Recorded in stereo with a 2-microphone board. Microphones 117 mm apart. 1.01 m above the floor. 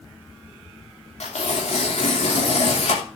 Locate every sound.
1.2 s tearing paper: 75° left (ahead or behind), 2.5 m